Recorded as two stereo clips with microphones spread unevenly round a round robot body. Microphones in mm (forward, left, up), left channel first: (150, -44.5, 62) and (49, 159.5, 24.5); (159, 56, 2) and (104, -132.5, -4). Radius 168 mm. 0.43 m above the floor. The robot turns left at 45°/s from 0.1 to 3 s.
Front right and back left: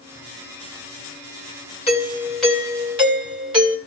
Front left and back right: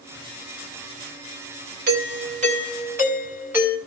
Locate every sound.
1.9 s a doorbell: 135° right, 3 m; by 3.8 s 175° left, 3 m